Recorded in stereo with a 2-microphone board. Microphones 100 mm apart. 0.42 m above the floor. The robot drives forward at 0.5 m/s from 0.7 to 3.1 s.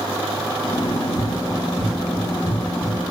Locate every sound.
0.8 s running footsteps: 65° left (ahead or behind), 7.5 m; by 3.1 s 85° left, 6.5 m